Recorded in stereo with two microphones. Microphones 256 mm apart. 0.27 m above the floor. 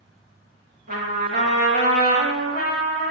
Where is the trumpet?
40° right (ahead or behind), 1.1 m.